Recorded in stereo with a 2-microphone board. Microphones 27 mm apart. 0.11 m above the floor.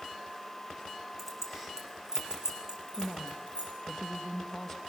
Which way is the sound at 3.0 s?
10° left (ahead or behind).